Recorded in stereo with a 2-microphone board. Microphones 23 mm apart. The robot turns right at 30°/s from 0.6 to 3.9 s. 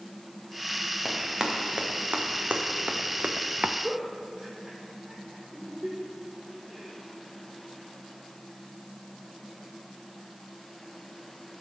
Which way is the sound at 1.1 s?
10° right (ahead or behind).